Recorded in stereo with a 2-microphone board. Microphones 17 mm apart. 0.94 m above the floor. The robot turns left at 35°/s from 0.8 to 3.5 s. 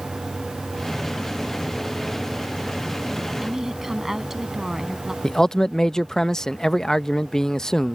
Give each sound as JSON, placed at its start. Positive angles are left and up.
{"t": 3.4, "sound": "a woman speaking", "side_deg": -10}
{"t": 5.2, "sound": "a man speaking", "side_deg": 35}